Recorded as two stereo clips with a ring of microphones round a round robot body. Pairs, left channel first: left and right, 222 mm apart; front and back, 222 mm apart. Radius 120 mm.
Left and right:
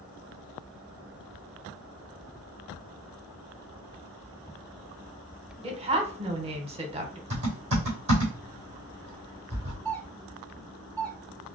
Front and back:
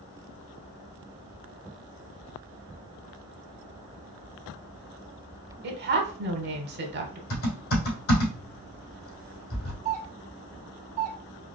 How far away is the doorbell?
About 1.6 m.